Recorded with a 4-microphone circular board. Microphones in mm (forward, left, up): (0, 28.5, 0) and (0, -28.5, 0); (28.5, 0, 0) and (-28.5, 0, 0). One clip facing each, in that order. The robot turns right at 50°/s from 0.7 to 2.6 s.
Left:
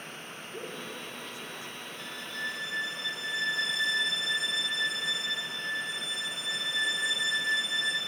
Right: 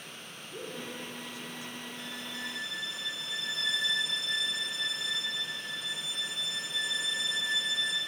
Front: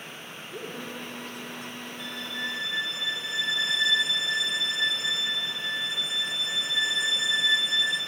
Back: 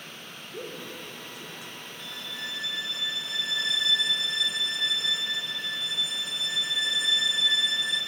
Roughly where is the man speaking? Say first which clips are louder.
Even, front 1 dB; ahead.